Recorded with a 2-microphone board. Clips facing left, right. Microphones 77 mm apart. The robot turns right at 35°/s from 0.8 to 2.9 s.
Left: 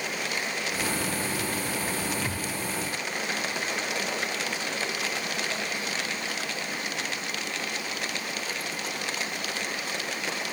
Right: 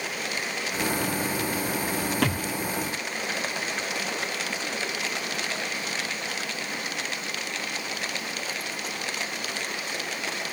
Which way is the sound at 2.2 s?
65° right (ahead or behind).